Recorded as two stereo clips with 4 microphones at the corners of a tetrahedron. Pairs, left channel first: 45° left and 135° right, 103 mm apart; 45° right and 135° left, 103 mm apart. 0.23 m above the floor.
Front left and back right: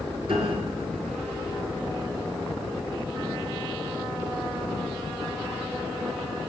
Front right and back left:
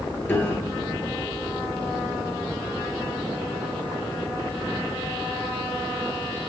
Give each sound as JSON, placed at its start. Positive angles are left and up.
{"t": 0.3, "sound": "a piano", "azimuth_deg": -115, "distance_m": 1.7}